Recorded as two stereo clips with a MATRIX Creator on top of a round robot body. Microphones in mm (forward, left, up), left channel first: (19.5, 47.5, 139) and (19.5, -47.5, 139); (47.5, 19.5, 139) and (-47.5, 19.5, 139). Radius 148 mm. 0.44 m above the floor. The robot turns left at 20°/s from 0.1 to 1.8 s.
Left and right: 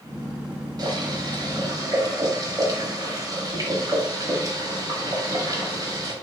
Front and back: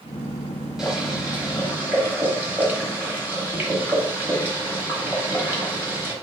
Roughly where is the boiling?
Right.